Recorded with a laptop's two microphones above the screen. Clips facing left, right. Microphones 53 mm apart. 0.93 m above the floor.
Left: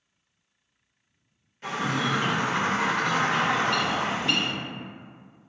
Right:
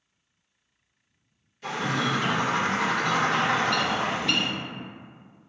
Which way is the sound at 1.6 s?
35° left (ahead or behind).